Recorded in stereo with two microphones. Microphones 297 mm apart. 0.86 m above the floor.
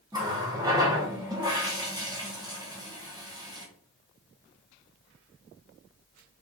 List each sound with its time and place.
0.1 s a running tap: 10° right (ahead or behind), 0.8 m